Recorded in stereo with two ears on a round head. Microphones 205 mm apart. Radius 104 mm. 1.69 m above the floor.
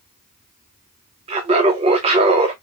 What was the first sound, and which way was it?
Laughter, 25° right (ahead or behind).